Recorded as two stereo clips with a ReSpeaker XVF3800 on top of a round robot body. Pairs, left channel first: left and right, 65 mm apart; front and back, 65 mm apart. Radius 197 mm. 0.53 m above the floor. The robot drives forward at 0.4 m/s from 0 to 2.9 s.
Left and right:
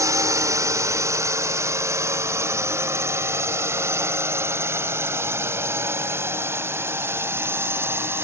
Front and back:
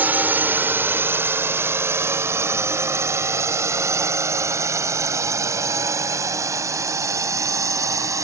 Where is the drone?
120° right; by 8.2 s 145° right.